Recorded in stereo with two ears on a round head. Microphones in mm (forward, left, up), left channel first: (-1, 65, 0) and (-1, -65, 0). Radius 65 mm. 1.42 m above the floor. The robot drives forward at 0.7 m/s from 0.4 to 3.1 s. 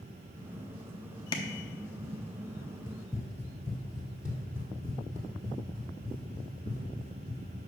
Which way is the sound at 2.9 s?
30° left (ahead or behind).